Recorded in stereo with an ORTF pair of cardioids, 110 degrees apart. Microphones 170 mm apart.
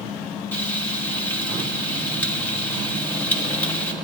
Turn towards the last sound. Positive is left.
turn(degrees=10)